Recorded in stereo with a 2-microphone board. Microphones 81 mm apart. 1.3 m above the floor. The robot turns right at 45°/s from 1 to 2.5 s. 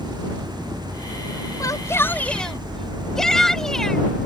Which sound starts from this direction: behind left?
A shout, at 1.6 s.